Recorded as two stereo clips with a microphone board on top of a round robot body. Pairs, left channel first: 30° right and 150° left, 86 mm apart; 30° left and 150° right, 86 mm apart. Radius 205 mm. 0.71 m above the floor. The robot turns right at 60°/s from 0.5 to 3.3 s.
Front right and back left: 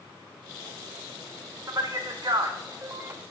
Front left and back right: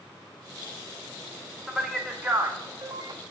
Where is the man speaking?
115° left, 0.6 m; by 3.2 s 155° right, 0.6 m.